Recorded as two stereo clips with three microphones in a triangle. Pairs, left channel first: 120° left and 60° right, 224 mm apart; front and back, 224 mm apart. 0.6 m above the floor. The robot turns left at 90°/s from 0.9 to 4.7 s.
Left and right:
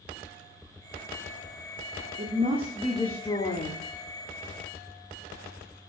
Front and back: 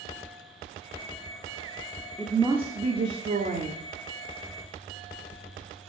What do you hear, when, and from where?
2.2 s a woman speaking: 80° right, 1.0 m; by 3.8 s 135° left, 1.0 m